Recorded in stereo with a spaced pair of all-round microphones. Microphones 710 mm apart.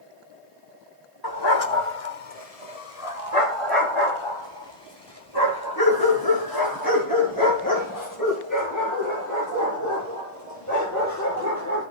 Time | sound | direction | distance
1.2 | a dog barking | 30° left (ahead or behind) | 1.7 m